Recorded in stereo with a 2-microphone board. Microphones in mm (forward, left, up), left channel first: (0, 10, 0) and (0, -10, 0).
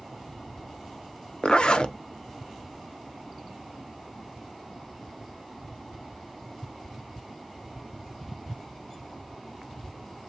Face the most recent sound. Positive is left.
turn(degrees=55)  # may be behind; listen again after turning